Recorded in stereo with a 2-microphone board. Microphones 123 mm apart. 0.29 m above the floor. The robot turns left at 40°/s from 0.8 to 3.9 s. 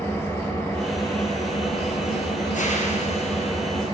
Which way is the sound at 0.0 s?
160° left.